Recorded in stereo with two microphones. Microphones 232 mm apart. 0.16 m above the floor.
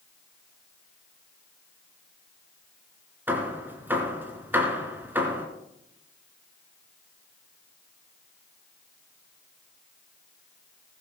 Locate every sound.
3.3 s hammering: 10° right (ahead or behind), 2 m